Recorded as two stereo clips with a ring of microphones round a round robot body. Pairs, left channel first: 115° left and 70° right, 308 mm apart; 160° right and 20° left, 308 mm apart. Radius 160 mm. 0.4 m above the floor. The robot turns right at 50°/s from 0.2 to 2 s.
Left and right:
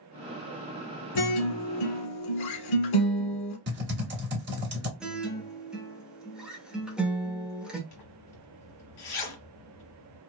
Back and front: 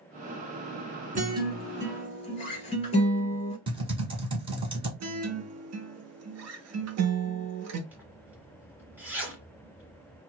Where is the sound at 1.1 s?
90° left, 0.9 m; by 3.6 s 130° left, 0.9 m.